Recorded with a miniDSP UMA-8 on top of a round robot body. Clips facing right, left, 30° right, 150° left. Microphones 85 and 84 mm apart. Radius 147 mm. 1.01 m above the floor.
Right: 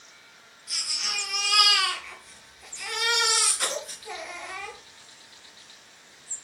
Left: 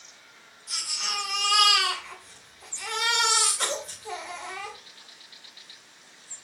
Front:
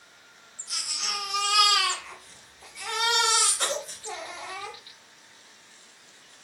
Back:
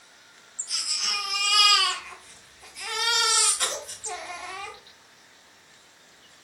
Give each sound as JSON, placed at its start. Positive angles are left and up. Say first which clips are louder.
{"t": 0.7, "sound": "a baby crying", "louder": "left 2 dB, even", "azimuth_deg": 30, "distance_m": 3.0}